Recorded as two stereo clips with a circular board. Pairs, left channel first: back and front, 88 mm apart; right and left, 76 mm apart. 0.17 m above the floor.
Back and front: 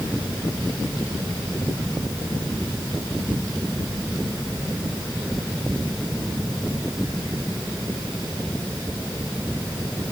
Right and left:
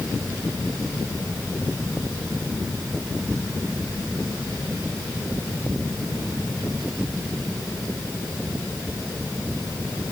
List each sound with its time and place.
Only background noise.